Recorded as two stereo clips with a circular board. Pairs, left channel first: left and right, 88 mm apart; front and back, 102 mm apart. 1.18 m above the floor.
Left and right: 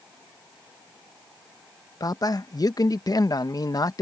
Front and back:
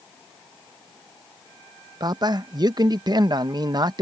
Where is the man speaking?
135° left.